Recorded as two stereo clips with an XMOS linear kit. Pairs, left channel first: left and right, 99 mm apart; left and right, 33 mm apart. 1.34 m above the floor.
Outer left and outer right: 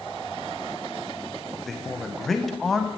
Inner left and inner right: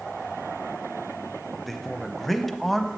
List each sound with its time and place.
1.7 s a man speaking: centre (ahead or behind), 0.6 m